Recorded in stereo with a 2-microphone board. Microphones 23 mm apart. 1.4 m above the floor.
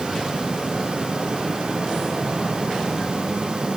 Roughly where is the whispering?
I don't hear whispering.